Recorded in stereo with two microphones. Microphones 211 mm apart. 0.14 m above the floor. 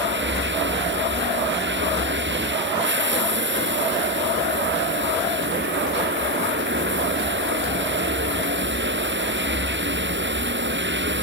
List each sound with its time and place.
0.0 s running water: 65° right (ahead or behind)